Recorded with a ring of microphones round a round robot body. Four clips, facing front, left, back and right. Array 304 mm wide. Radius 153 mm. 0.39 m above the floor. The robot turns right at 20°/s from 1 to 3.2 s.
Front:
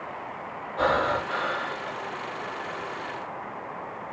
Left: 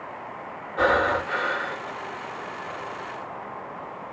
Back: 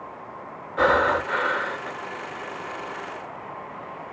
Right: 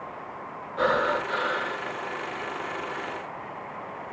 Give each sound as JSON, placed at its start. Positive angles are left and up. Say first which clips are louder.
{"t": 0.8, "sound": "breathing", "louder": "left 3 dB, back 4 dB", "azimuth_deg": 160, "distance_m": 0.8}